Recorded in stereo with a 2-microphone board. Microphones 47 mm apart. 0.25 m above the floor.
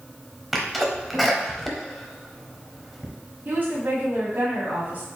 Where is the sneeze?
Centre (ahead or behind), 0.9 m.